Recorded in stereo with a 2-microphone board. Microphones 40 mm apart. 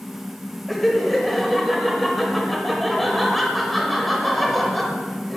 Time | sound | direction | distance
0.7 | laughter | centre (ahead or behind) | 1.1 m